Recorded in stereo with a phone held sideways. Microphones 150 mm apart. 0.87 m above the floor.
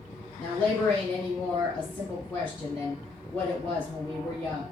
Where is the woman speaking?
15° left (ahead or behind), 1.7 m.